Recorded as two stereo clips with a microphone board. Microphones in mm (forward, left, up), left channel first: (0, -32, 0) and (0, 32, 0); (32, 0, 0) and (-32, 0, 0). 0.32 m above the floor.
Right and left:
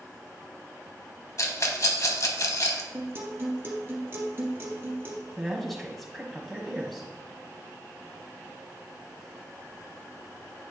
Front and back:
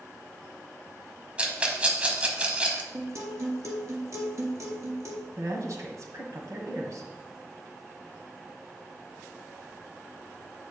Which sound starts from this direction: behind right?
A rattle, at 1.4 s.